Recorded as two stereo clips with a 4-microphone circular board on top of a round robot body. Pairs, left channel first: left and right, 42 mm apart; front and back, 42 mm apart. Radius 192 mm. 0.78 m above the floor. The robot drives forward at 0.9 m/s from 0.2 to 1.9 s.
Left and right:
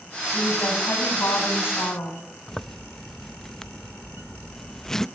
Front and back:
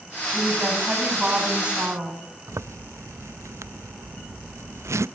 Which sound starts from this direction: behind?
A zipper, at 2.5 s.